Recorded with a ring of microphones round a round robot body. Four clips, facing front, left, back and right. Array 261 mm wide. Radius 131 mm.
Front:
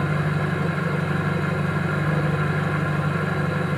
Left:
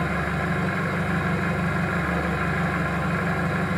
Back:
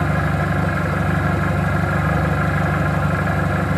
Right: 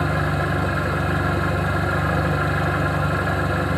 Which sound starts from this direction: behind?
An engine running, at 0.0 s.